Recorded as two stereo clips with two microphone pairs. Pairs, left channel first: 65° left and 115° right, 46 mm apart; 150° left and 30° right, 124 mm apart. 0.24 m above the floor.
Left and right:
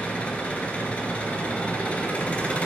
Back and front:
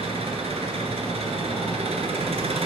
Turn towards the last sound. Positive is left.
turn(degrees=0)